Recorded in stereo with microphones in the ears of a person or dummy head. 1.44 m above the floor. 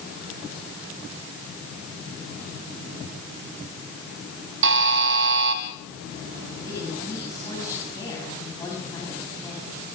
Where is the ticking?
I don't hear ticking.